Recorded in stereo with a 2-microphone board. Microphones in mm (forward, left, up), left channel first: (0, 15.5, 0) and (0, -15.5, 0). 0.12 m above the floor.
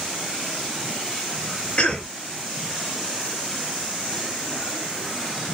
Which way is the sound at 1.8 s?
40° left (ahead or behind).